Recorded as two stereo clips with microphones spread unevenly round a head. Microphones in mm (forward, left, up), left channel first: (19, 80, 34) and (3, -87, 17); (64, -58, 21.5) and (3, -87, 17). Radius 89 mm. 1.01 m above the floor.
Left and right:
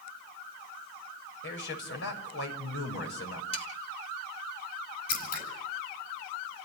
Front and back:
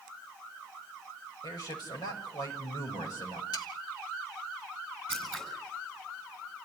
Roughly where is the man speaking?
Ahead left.